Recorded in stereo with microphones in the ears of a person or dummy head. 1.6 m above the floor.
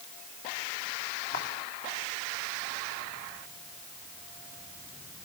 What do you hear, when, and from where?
1.3 s footsteps: 65° left (ahead or behind), 4.5 m